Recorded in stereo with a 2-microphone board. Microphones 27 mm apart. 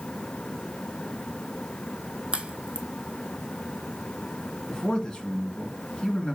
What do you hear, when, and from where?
2.3 s a crack: 45° right (ahead or behind), 0.9 m
4.7 s a man speaking: 25° left (ahead or behind), 2.5 m